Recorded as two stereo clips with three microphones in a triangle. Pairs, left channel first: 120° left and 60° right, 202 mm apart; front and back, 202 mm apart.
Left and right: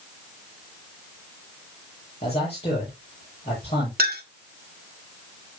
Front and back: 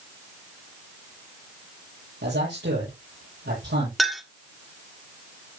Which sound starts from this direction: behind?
A man speaking, at 2.2 s.